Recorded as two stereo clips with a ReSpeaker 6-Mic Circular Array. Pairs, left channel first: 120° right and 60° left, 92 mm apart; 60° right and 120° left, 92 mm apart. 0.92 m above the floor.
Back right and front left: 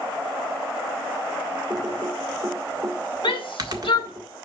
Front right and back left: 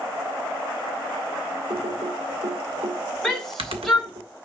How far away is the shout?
About 2.5 m.